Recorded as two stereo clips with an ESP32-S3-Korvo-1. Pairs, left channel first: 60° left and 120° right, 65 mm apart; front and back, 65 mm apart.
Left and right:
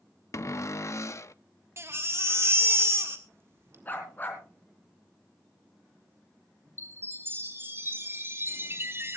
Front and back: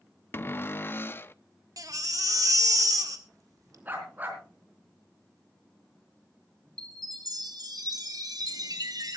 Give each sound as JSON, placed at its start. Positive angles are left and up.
{"t": 0.3, "sound": "a cupboard door", "azimuth_deg": 45, "distance_m": 0.5}
{"t": 1.8, "sound": "a baby crying", "azimuth_deg": -165, "distance_m": 1.7}
{"t": 3.9, "sound": "a dog barking", "azimuth_deg": 120, "distance_m": 3.5}
{"t": 6.8, "sound": "a chime", "azimuth_deg": -170, "distance_m": 3.5}